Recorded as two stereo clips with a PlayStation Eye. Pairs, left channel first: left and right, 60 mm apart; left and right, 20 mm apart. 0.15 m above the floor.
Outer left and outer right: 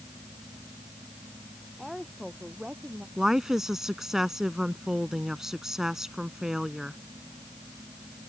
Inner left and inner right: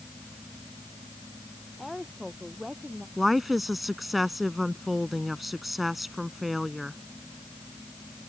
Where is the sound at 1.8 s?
Centre (ahead or behind); by 3.1 s 20° right (ahead or behind).